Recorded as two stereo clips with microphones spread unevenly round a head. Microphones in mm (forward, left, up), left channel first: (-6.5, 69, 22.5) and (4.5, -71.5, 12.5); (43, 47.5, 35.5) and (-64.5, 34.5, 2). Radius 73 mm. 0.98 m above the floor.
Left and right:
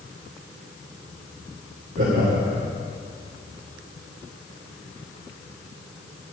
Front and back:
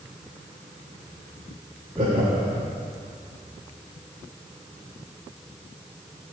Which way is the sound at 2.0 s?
115° right.